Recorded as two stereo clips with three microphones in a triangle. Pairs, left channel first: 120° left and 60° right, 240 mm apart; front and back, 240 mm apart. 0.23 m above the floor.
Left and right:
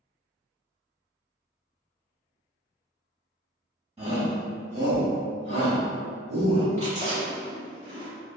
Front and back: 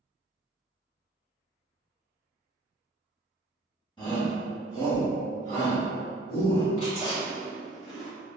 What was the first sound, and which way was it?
A shout, 40° right.